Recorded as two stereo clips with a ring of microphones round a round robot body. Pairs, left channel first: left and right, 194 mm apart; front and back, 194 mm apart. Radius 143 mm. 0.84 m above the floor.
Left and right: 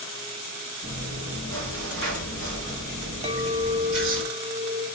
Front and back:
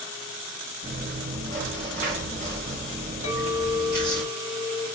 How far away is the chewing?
About 2 m.